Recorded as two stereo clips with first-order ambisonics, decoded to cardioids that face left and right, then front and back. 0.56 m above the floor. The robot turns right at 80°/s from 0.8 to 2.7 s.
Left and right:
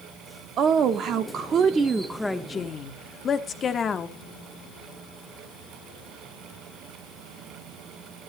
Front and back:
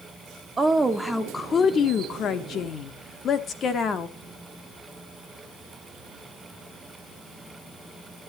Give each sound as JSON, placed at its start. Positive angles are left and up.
{"t": 0.6, "sound": "a woman speaking", "azimuth_deg": -110, "distance_m": 1.0}